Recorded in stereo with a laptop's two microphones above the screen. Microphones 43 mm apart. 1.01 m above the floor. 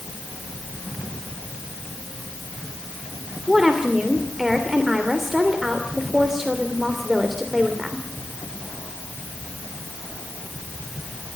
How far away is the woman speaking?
About 3 m.